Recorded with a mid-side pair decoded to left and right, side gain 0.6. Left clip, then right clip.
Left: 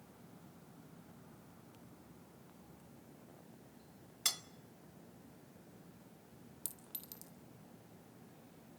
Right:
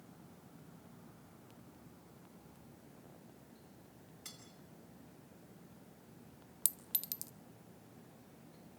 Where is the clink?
50° right, 1.0 m.